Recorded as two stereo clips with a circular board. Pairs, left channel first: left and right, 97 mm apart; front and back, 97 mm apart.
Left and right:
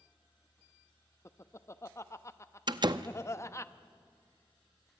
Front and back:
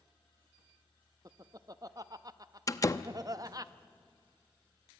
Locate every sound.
1.2 s laughter: 140° left, 0.8 m
2.7 s a door slam: 50° right, 0.7 m